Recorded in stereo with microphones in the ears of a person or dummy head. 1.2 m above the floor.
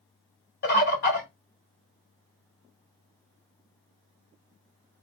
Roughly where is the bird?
Left.